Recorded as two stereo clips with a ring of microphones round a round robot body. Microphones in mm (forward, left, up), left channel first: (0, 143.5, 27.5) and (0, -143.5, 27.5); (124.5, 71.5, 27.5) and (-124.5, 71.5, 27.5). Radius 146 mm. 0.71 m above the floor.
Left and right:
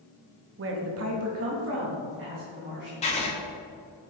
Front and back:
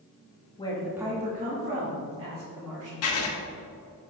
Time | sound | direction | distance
0.6 | a woman speaking | 60° right | 1.0 m
3.0 | writing | 20° left | 1.1 m